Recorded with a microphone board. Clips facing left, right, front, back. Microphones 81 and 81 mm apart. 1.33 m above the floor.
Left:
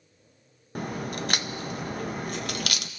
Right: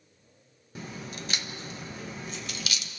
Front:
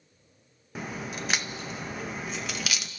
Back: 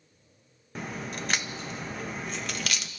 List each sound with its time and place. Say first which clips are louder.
0.8 s a crack: left 8 dB, even; 85° left, 0.6 m